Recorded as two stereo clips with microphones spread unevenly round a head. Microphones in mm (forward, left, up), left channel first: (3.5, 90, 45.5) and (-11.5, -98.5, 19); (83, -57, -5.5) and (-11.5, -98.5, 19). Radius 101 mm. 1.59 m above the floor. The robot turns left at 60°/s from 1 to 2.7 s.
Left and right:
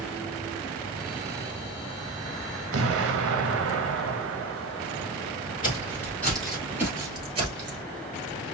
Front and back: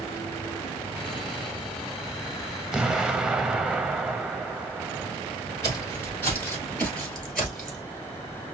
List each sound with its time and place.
2.7 s an explosion: 75° right, 0.7 m
5.6 s footsteps: 95° left, 1.7 m; by 7.8 s 105° right, 1.7 m